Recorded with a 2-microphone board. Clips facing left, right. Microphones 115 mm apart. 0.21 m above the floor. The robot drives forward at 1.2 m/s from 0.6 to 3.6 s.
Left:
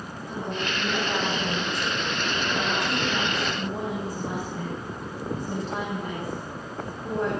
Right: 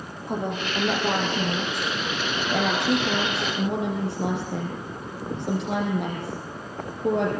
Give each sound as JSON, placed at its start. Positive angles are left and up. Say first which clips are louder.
{"t": 0.3, "sound": "a woman speaking", "louder": "right 3 dB", "side_deg": -55, "distance_m": 8.5}